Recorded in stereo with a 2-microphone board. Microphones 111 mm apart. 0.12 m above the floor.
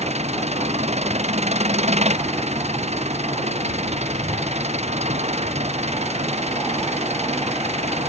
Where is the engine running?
75° right (ahead or behind).